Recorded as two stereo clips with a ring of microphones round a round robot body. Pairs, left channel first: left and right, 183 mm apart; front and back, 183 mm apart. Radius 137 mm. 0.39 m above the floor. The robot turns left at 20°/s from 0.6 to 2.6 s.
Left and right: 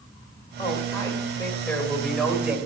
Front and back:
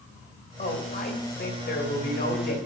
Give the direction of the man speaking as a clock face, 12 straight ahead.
11 o'clock.